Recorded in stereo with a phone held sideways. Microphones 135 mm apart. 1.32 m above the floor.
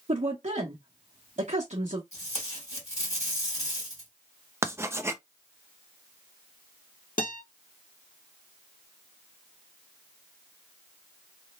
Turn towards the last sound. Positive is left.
turn(degrees=80)